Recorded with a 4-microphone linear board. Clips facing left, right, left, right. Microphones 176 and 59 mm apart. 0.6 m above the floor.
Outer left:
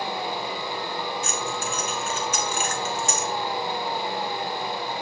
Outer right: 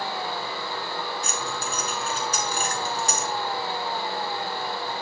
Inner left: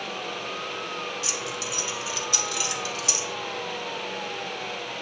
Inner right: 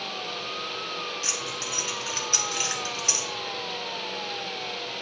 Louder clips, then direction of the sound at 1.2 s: Outer left 2 dB, inner left 1 dB; 35° right (ahead or behind).